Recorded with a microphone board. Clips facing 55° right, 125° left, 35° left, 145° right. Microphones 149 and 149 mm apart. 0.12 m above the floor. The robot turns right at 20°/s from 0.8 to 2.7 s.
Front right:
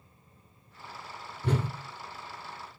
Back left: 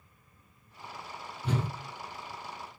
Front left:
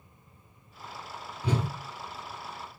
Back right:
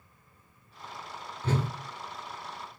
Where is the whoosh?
45° right, 0.8 m; by 1.7 s 40° right, 0.8 m.